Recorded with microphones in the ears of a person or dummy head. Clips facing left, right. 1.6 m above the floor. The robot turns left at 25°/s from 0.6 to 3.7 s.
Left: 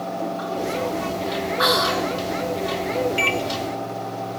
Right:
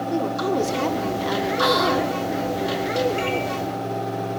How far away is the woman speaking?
About 1.9 m.